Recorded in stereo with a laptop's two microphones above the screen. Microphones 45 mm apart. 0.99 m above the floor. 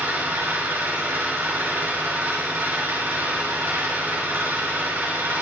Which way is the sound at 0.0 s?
60° right (ahead or behind).